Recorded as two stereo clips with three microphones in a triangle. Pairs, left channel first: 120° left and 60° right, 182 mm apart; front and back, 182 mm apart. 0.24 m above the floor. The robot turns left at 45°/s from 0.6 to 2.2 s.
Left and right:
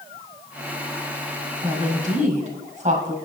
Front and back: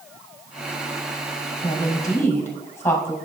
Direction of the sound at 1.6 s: 45° right.